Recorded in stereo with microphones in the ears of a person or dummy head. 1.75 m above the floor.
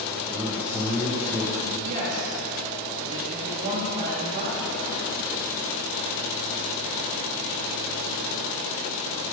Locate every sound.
0.3 s a man speaking: centre (ahead or behind), 1.2 m
1.9 s a woman speaking: 35° right (ahead or behind), 2.5 m